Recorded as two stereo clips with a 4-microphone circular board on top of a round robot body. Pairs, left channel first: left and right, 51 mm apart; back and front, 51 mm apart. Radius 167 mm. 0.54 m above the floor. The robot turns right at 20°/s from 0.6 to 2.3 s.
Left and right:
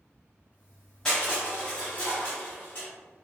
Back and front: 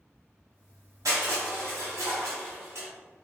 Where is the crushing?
10° left, 0.9 m; by 2.9 s 35° left, 0.9 m.